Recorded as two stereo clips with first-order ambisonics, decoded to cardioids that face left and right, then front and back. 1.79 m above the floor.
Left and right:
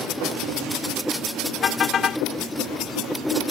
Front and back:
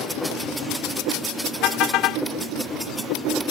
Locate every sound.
1.6 s a car horn: 30° left